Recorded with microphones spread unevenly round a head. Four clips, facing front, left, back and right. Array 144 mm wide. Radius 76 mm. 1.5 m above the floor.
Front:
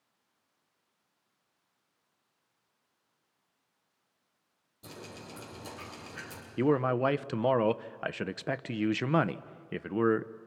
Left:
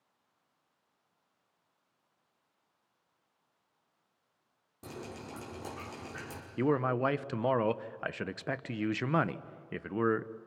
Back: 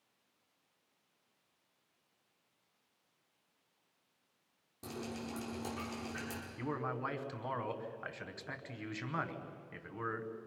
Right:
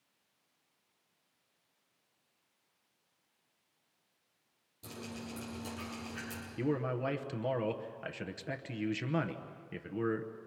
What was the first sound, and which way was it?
Dripping, 130° left.